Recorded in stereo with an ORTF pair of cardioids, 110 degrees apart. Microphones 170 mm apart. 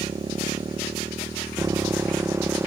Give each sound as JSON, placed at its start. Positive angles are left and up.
{"t": 0.0, "sound": "a motorcycle", "azimuth_deg": -25}